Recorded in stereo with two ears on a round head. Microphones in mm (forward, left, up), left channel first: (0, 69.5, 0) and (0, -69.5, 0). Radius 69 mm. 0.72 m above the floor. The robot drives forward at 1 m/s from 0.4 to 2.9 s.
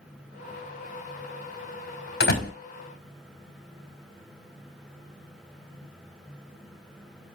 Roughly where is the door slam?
Left.